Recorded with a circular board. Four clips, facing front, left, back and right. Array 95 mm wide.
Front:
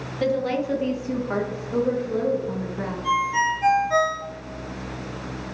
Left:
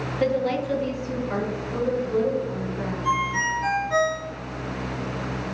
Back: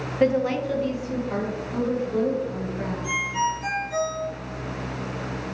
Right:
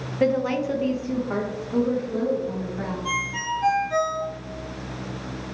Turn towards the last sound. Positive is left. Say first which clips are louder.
# left 4 dB, front 5 dB
turn(degrees=0)